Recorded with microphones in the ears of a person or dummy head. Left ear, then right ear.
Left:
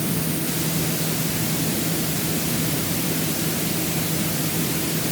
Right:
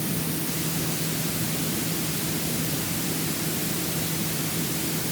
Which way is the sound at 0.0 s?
10° left (ahead or behind).